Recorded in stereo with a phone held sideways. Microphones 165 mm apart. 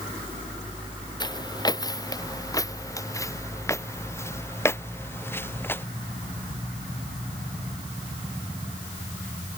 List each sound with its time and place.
1.2 s footsteps: 25° left (ahead or behind); by 5.8 s 15° left (ahead or behind)